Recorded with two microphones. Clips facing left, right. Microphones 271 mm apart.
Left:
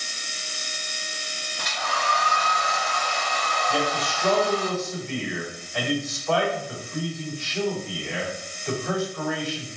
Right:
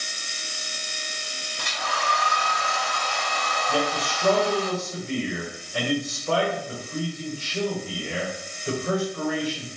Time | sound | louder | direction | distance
1.6 | a hair dryer | left 1 dB | 35° right (ahead or behind) | 1.2 m
3.7 | a man speaking | right 1 dB | 35° right (ahead or behind) | 1.4 m